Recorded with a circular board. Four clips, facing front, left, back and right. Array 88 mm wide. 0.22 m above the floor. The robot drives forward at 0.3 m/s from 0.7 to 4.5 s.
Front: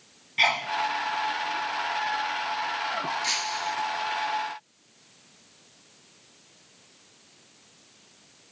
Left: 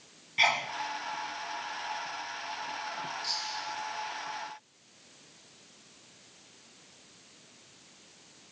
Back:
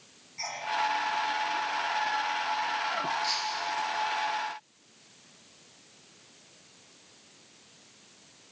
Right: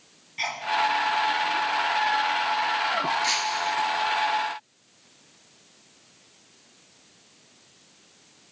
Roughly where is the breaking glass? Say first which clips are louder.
Right 12 dB, front 2 dB; ahead right.